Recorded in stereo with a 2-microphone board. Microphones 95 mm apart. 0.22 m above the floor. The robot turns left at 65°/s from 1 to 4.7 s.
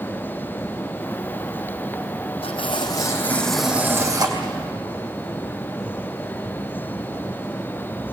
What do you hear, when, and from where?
2.4 s tearing paper: 75° left, 4 m; by 4.5 s 60° right, 4 m